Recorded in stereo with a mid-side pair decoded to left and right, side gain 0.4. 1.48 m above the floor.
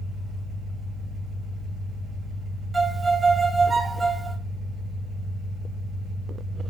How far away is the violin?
About 0.8 m.